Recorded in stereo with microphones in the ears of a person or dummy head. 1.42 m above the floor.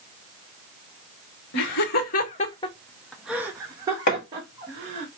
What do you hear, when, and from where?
1.5 s laughter: 75° left (ahead or behind), 1.0 m; by 5.1 s 40° right (ahead or behind), 1.6 m
4.1 s hammering: 55° left (ahead or behind), 1.3 m